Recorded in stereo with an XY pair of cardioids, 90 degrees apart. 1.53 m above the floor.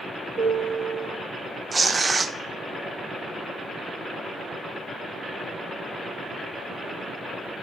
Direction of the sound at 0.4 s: 55° right.